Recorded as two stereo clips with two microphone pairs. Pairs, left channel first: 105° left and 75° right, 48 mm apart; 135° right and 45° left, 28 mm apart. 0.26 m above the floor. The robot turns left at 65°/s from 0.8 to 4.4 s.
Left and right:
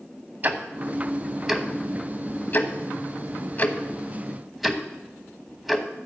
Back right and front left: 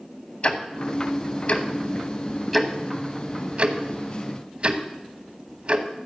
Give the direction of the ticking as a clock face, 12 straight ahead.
4 o'clock.